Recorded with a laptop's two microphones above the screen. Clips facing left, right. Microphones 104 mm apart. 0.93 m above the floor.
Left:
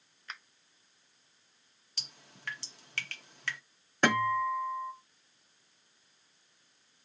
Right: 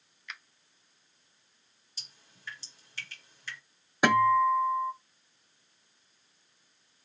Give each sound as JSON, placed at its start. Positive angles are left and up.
{"t": 0.3, "sound": "a finger snap", "side_deg": 35, "distance_m": 0.6}
{"t": 2.0, "sound": "dripping", "side_deg": 65, "distance_m": 0.7}
{"t": 4.0, "sound": "a guitar", "side_deg": -10, "distance_m": 0.6}